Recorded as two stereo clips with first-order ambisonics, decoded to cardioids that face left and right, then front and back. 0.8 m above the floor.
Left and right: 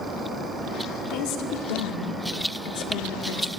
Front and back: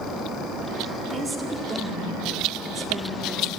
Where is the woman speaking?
100° left, 1.9 m.